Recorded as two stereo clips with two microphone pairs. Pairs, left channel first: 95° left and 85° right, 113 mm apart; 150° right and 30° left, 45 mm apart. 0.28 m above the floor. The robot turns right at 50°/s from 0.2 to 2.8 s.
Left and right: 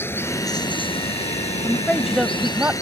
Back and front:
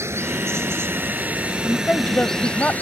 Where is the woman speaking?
165° left; by 2.7 s 140° right.